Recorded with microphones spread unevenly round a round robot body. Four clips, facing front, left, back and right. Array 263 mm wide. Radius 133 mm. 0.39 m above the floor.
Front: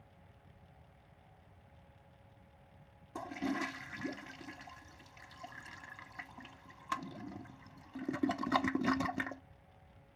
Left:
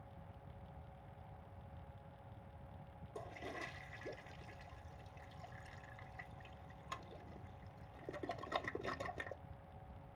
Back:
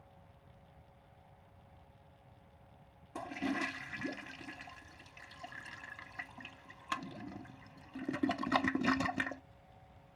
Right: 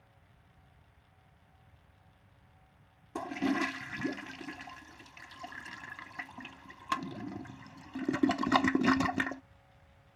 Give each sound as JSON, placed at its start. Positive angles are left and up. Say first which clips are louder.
{"t": 3.1, "sound": "a toilet flushing", "louder": "right 17 dB, even", "azimuth_deg": -95}